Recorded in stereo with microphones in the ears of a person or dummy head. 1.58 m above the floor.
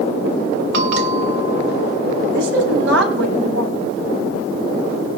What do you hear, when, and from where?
0.7 s a bell: 70° right (ahead or behind), 1.5 m
2.3 s a woman speaking: 75° right (ahead or behind), 4.5 m